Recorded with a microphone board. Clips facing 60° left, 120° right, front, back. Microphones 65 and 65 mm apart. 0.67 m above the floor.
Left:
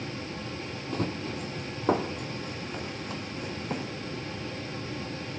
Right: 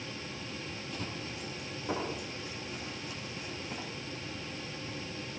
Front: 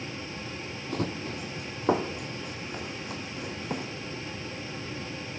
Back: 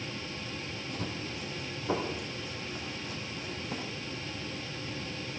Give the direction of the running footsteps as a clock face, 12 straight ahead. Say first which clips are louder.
Left 11 dB, front 8 dB; 11 o'clock.